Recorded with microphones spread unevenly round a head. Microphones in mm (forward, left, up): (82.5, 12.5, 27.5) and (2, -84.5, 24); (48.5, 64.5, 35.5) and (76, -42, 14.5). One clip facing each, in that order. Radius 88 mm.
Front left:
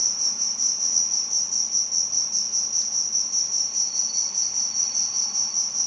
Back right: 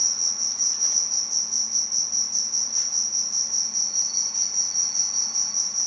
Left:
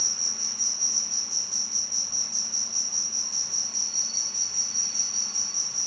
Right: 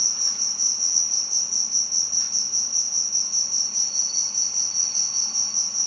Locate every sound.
0.0 s an insect: 20° right